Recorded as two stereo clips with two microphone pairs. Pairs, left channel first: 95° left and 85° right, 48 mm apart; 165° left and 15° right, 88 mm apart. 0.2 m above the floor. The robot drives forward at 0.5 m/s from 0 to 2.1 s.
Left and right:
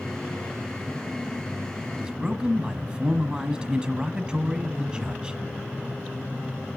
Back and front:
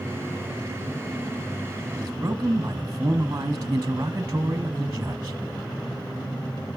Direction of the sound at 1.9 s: 45° right.